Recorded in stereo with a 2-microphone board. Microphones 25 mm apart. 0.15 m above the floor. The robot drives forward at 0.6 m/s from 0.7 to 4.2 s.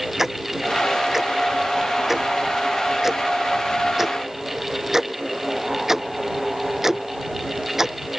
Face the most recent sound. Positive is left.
turn(degrees=-15)  # may be behind; listen again after turning